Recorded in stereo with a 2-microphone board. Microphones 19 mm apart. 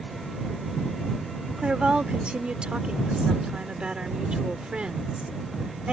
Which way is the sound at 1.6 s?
70° right (ahead or behind).